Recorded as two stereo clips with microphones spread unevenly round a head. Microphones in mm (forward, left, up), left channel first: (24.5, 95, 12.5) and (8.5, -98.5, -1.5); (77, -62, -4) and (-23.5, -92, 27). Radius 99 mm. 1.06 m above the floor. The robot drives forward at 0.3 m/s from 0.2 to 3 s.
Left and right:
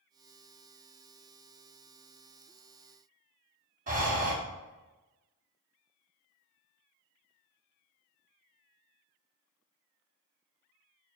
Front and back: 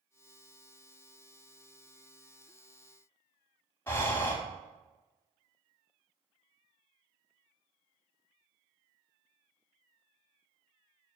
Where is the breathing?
65° right, 0.7 m.